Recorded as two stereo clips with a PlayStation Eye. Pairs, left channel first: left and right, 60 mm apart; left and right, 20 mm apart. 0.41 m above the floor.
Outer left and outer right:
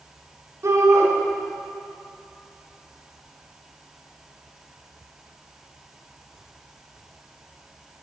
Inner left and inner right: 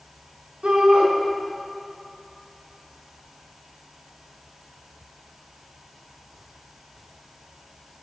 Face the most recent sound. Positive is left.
turn(degrees=-55)  # may be behind; listen again after turning